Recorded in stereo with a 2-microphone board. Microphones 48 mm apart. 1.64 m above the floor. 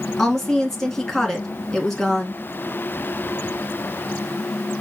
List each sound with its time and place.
0.2 s a woman speaking: 10° left (ahead or behind), 1.9 m